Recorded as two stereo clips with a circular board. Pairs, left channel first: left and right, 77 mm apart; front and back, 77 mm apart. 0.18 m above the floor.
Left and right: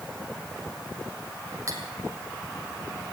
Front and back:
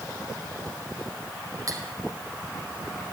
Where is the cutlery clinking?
140° right, 4.5 m.